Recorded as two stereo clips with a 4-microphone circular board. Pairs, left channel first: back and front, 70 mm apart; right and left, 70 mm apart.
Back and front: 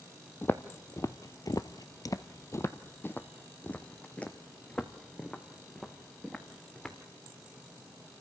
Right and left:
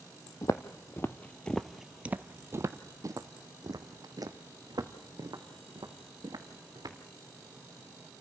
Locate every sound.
0.4 s footsteps: 125° right, 1.0 m; by 7.0 s 100° left, 3 m